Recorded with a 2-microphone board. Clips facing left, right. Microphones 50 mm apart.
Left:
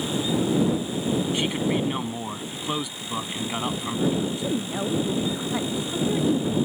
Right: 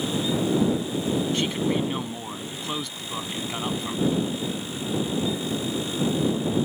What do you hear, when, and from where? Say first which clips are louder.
1.3 s a man speaking: even; 15° left (ahead or behind)
4.2 s a woman speaking: left 3 dB; 75° left (ahead or behind)